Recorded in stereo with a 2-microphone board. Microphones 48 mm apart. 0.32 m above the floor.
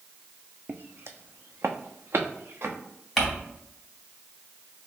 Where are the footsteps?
40° right (ahead or behind), 0.6 m; by 2.8 s 55° right (ahead or behind), 1.5 m.